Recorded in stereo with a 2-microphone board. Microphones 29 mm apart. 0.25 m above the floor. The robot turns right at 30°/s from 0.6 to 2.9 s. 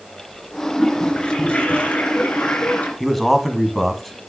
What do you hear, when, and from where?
0.8 s a toilet flushing: 20° left, 3 m; by 2.9 s 85° left, 3 m
3.0 s a man speaking: centre (ahead or behind), 2.0 m